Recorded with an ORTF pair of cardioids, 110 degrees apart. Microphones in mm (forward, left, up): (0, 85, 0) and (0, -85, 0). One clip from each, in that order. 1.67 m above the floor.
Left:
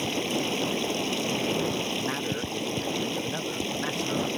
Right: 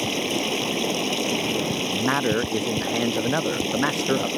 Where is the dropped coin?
No dropped coin in this recording.